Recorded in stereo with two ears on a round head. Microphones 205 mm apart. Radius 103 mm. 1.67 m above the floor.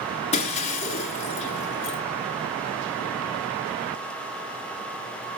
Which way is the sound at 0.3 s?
30° left (ahead or behind).